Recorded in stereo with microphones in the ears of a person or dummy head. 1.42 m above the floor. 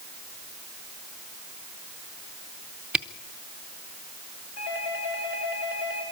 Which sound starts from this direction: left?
A doorbell, at 4.6 s.